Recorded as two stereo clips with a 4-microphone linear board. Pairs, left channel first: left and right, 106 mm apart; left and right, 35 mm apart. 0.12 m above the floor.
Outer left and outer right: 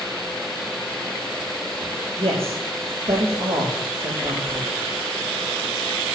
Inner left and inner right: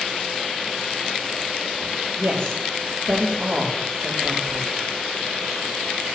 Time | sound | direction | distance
2.2 | a man speaking | 65° right (ahead or behind) | 4 m